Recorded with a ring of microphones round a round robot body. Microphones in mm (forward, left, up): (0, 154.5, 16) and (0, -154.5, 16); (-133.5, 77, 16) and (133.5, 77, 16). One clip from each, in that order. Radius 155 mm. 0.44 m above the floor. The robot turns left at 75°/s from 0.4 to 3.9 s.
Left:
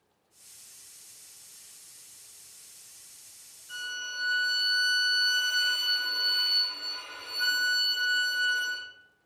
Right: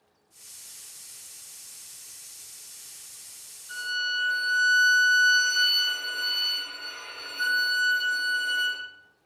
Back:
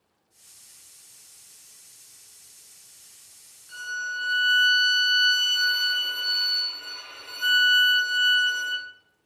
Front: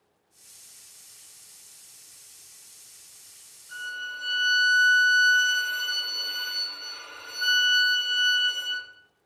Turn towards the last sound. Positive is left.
turn(degrees=-145)